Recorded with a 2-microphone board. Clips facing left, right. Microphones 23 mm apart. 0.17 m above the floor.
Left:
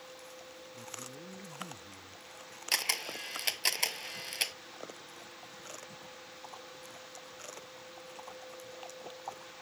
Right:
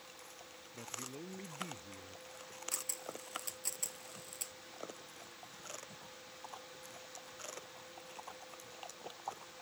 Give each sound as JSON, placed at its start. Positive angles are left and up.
{"t": 0.7, "sound": "a man speaking", "side_deg": -50}
{"t": 2.7, "sound": "a camera shutter", "side_deg": 65}